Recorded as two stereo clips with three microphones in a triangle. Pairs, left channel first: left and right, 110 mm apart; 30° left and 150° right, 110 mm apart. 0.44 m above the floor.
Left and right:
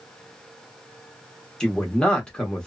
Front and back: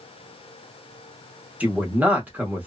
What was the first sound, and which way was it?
A man speaking, 160° left.